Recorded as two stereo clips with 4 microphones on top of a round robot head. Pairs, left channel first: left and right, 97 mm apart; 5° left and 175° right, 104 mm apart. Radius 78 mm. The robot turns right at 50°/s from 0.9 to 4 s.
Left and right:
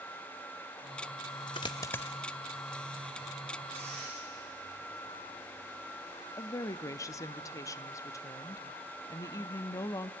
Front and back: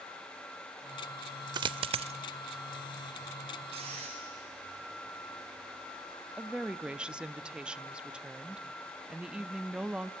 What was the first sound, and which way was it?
A dropped coin, 145° left.